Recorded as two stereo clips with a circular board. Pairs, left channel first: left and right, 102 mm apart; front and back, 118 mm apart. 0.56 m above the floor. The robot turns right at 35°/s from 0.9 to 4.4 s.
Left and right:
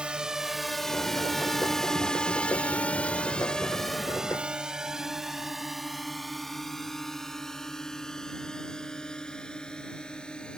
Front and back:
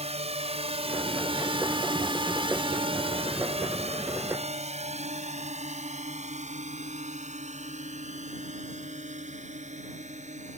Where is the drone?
170° right; by 10.6 s 170° left.